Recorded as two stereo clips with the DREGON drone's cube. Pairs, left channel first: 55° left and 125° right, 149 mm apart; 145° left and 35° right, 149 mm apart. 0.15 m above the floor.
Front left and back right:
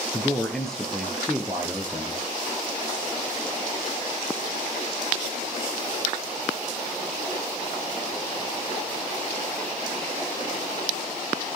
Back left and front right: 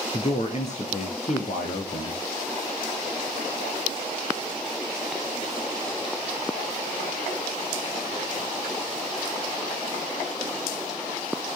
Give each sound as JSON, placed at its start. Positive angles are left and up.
{"t": 0.1, "sound": "a man speaking", "azimuth_deg": 135, "distance_m": 2.0}